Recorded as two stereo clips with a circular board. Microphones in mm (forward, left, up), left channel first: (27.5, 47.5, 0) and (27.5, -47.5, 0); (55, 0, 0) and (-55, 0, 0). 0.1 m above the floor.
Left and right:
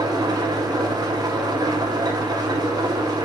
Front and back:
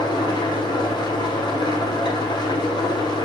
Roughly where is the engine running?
Ahead right.